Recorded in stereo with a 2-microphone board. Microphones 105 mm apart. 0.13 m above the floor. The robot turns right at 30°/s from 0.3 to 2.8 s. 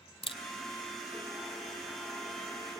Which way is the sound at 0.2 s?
60° left (ahead or behind).